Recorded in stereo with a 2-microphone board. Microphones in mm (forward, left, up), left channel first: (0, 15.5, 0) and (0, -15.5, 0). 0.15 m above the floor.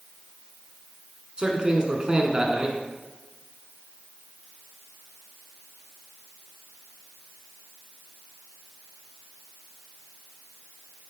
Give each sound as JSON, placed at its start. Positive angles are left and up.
{"t": 1.4, "sound": "a man speaking", "side_deg": -30, "distance_m": 1.3}